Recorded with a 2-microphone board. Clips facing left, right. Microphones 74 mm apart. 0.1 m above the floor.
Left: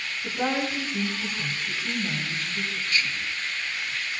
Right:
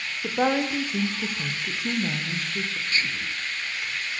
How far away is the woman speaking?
About 7 m.